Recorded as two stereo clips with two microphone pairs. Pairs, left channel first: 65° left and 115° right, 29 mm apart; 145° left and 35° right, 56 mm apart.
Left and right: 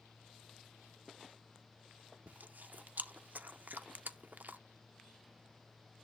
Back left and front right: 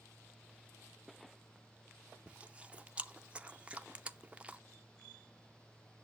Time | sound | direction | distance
2.3 | chewing | 105° right | 0.6 m